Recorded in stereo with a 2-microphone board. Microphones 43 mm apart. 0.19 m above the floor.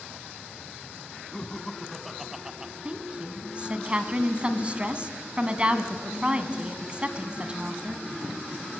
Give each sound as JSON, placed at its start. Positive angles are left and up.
{"t": 1.3, "sound": "laughter", "side_deg": 20, "distance_m": 1.3}
{"t": 2.9, "sound": "a woman speaking", "side_deg": -25, "distance_m": 1.7}